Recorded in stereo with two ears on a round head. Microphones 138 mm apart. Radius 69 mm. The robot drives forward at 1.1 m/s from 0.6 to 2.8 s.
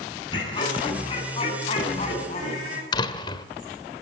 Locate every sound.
0.3 s laughter: 30° left (ahead or behind), 7 m; by 2.8 s 45° left (ahead or behind), 5 m
2.9 s a door slam: 30° left (ahead or behind), 1.3 m